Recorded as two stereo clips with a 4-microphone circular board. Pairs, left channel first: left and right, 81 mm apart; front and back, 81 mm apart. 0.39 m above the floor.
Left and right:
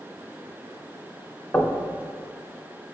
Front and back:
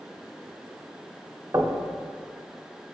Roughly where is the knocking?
Behind left.